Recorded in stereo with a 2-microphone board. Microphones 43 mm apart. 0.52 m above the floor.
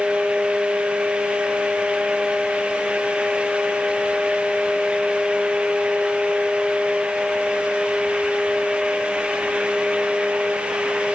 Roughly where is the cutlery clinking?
I don't hear cutlery clinking.